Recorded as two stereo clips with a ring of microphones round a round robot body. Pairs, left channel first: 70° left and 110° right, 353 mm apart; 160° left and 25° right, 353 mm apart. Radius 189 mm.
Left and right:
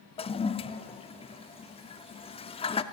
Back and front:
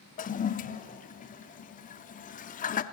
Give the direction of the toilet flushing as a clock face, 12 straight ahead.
8 o'clock.